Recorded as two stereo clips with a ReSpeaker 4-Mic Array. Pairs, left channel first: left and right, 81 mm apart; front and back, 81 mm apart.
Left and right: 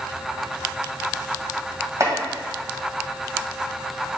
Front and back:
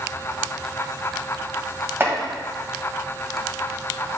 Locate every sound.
2.0 s chopping: 125° right, 1.8 m